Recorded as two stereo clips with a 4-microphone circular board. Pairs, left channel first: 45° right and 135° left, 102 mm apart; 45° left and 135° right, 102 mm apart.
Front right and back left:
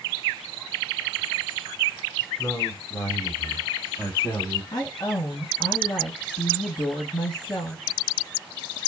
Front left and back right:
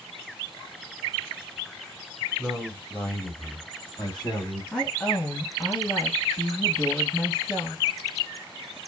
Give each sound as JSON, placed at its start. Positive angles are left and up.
{"t": 2.4, "sound": "a man speaking", "azimuth_deg": -45, "distance_m": 1.4}
{"t": 4.7, "sound": "a woman speaking", "azimuth_deg": -25, "distance_m": 1.4}